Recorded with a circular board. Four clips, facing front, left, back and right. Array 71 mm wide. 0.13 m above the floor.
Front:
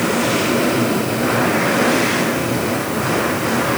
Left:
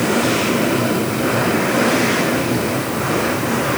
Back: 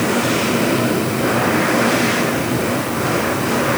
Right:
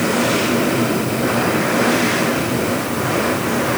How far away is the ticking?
I don't hear ticking.